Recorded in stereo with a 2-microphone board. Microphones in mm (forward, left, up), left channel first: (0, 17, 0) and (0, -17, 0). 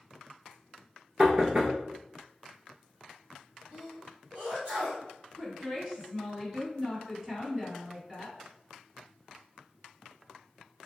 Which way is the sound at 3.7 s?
50° right (ahead or behind).